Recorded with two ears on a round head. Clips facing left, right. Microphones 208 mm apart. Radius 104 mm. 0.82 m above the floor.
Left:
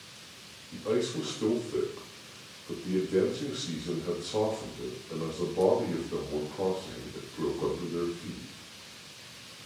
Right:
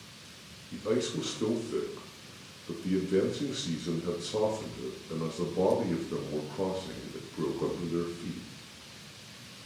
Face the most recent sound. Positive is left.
turn(degrees=-30)  # may be behind; listen again after turning